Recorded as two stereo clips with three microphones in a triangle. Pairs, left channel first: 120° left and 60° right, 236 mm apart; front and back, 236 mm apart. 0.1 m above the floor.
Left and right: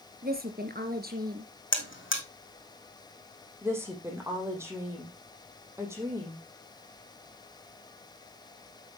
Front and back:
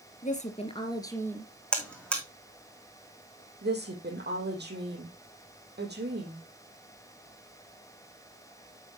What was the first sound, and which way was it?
A woman speaking, 40° right.